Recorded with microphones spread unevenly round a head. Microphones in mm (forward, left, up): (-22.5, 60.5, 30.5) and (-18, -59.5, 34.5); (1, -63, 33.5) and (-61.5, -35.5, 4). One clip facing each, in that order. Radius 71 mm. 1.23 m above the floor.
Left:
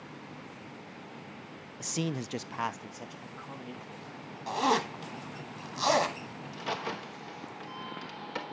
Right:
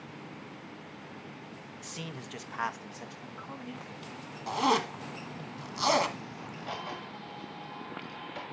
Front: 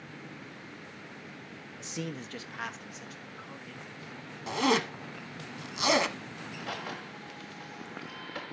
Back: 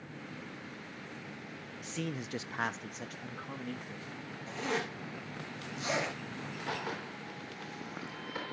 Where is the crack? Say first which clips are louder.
Left 4 dB, even; 80° left, 3.5 m.